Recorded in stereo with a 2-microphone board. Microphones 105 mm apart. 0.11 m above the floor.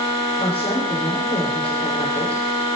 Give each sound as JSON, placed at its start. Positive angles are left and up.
{"t": 0.4, "sound": "a woman speaking", "side_deg": 75, "distance_m": 8.0}